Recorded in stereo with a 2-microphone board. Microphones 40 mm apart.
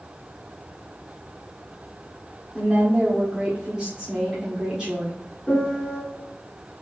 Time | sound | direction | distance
2.5 | a woman speaking | 25° right (ahead or behind) | 1.4 m
5.5 | a piano | 15° left (ahead or behind) | 1.9 m